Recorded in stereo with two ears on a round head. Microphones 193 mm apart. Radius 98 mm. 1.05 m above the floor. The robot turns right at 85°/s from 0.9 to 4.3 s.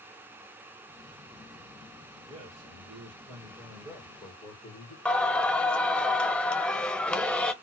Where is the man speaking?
155° right, 1.4 m; by 5.0 s 15° left, 1.4 m.